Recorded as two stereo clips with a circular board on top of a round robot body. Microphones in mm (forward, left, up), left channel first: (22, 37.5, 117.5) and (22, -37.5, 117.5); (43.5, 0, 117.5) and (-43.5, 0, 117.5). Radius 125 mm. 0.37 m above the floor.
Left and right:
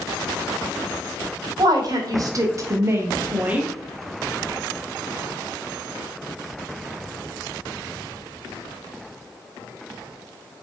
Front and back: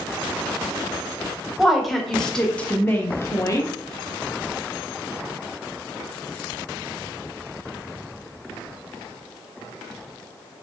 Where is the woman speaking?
95° right, 1.5 m; by 3.7 s 20° right, 1.1 m.